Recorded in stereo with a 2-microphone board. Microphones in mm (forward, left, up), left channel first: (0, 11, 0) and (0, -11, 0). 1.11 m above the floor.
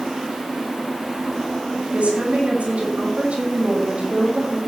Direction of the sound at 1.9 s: 80° right.